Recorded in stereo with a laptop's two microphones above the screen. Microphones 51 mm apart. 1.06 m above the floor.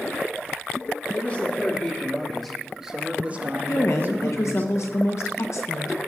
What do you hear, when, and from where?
1.1 s a man speaking: 30° left (ahead or behind), 3 m; by 4.7 s 65° right (ahead or behind), 2.5 m
3.7 s a woman speaking: 70° left (ahead or behind), 1.2 m